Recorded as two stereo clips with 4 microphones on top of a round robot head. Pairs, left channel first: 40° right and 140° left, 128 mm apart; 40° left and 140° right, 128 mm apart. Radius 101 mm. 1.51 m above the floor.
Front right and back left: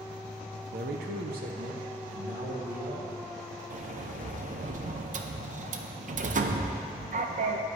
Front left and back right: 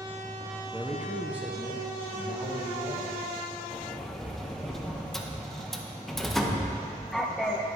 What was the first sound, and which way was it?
A man speaking, 135° left.